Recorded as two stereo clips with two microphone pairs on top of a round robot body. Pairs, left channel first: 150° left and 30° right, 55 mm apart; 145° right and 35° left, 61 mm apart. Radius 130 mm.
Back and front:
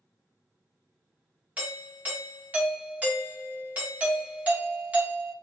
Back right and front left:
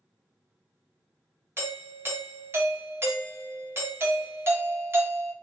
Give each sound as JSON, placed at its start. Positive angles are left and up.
{"t": 1.6, "sound": "a doorbell", "azimuth_deg": 30, "distance_m": 1.1}